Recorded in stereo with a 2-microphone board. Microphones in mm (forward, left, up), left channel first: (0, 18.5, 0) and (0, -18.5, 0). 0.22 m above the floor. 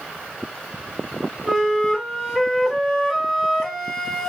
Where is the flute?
Centre (ahead or behind), 1.0 m.